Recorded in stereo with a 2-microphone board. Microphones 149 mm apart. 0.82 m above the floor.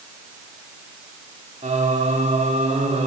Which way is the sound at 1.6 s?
60° right (ahead or behind).